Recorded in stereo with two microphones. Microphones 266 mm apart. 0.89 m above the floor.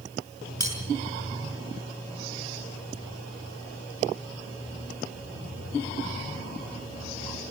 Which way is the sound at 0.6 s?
85° right.